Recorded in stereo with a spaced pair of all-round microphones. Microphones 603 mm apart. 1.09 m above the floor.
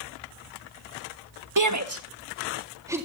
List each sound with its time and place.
1.6 s a shout: 30° right (ahead or behind), 1.4 m; by 3.1 s 5° right (ahead or behind), 1.9 m